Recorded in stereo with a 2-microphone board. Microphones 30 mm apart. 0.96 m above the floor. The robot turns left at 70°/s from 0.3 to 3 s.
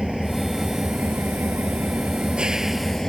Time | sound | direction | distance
0.0 | an engine running | 5° right | ?